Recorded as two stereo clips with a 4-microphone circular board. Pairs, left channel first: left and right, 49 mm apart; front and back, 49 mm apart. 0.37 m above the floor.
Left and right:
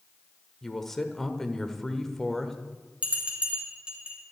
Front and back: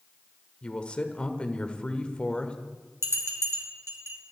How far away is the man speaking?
About 1.4 m.